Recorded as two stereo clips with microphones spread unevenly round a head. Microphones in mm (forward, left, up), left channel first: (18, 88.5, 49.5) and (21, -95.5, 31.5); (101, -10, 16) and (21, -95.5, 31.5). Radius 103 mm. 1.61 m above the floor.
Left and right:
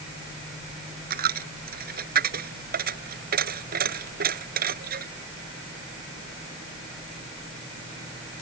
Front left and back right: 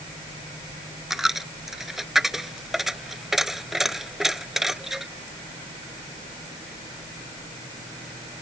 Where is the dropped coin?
50° right.